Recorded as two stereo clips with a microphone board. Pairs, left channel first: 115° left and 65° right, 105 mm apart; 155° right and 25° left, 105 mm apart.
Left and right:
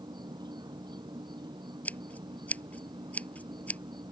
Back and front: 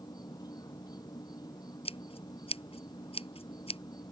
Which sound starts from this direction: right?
An insect, at 0.0 s.